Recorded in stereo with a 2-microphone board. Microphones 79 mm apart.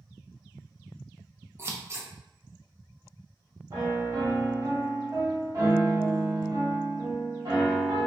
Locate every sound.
1.6 s scissors: 30° right (ahead or behind), 0.5 m
3.7 s a piano: 45° right (ahead or behind), 1.2 m